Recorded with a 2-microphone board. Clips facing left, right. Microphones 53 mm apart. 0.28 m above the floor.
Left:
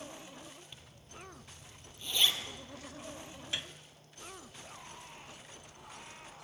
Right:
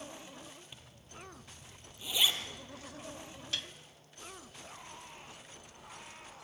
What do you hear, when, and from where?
0.7 s a zipper: 10° right (ahead or behind), 4 m
3.5 s a piano: 20° left (ahead or behind), 1.8 m